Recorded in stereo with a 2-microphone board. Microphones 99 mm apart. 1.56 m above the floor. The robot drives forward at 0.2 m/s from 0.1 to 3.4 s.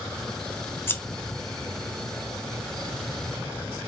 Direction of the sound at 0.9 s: 25° left (ahead or behind).